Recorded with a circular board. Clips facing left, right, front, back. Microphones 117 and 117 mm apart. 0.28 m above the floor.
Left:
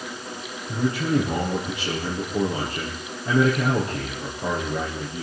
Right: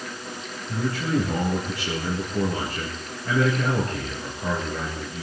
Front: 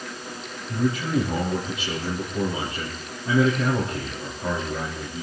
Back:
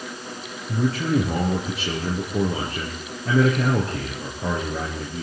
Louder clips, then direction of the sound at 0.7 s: Left 2 dB, back 2 dB; 160° left.